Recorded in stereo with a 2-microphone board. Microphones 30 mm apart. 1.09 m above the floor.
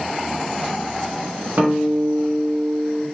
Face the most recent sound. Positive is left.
turn(degrees=-55)  # may be behind; listen again after turning